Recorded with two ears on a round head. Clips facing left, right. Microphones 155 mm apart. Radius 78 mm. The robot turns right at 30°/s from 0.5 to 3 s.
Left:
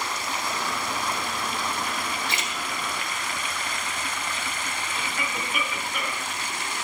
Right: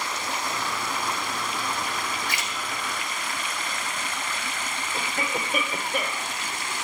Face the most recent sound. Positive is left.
turn(degrees=-35)  # may be behind; listen again after turning